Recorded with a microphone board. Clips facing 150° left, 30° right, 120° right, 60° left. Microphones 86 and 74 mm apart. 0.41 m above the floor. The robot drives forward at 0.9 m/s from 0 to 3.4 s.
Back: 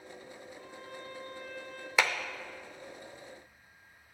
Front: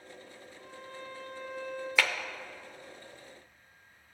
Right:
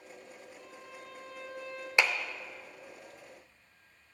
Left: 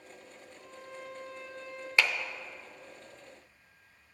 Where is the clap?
165° right, 0.6 m; by 2.1 s 170° right, 0.6 m.